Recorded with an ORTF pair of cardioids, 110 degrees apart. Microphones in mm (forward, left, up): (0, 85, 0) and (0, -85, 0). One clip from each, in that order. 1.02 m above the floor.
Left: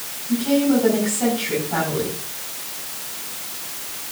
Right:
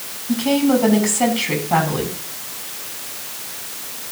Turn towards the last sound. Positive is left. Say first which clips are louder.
# right 2 dB
turn(degrees=-60)